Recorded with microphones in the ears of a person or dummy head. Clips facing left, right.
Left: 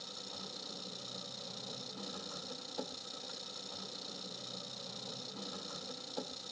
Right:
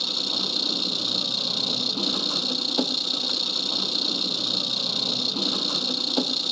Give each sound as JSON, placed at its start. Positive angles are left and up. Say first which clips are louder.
{"t": 0.0, "sound": "an engine running", "louder": "right 16 dB", "side_deg": -80}